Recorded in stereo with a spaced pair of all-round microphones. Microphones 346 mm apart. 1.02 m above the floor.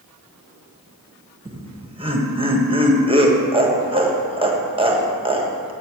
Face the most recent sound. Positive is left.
turn(degrees=-15)  # may be behind; listen again after turning